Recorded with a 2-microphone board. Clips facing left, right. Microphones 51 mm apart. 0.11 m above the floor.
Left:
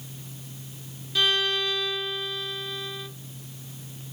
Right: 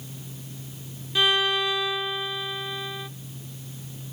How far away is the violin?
About 0.9 m.